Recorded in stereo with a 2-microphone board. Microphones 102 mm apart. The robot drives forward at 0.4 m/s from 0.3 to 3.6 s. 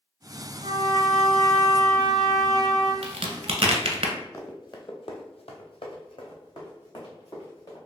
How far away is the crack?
About 0.6 m.